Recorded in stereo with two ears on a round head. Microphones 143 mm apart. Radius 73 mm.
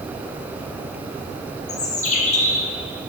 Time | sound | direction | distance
1.7 | a bird | 45° left (ahead or behind) | 1.0 m